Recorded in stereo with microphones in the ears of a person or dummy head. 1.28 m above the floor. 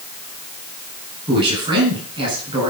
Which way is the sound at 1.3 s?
30° right (ahead or behind).